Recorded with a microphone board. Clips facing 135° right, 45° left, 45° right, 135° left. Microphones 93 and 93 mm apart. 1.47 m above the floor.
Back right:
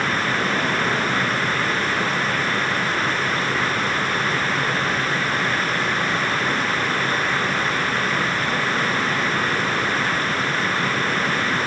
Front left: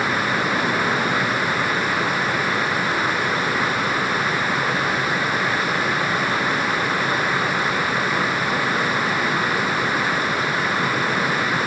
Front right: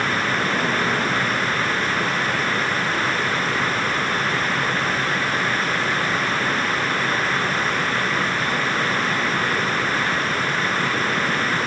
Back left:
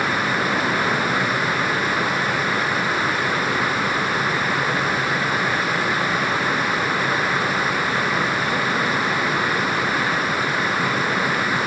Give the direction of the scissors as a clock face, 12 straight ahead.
No scissors in this recording.